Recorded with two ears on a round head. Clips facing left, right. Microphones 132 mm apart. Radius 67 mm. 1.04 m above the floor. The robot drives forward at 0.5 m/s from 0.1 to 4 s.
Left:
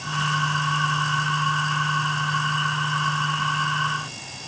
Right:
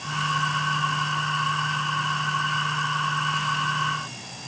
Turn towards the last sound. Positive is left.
No sound to turn to.